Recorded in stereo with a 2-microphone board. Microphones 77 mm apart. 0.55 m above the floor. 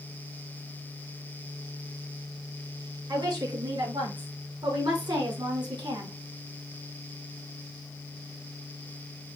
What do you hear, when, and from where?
3.1 s a woman speaking: 65° right (ahead or behind), 6 m; by 6.2 s 75° right (ahead or behind), 4.5 m